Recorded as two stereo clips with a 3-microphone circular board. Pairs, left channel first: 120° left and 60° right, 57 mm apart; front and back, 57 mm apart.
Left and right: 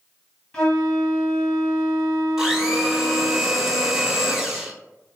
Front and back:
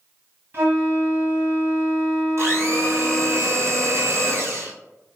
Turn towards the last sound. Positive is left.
turn(degrees=-140)